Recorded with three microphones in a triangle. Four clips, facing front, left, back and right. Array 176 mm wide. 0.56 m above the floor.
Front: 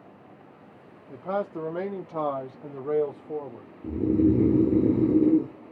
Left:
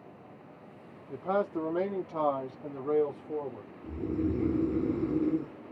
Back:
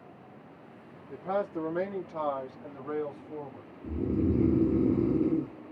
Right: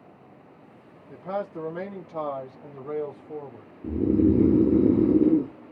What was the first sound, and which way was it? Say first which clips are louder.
A man speaking: left 2 dB, front 2 dB; 45° left.